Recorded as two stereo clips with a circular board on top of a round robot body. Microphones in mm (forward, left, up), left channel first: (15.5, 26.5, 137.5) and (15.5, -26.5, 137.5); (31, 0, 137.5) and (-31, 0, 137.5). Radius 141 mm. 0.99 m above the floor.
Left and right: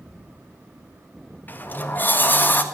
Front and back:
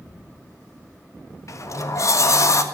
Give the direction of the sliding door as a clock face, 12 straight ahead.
11 o'clock.